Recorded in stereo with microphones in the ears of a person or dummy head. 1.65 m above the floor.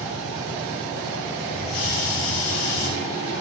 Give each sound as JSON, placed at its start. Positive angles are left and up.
{"t": 1.5, "sound": "a hiss", "side_deg": 75, "distance_m": 2.0}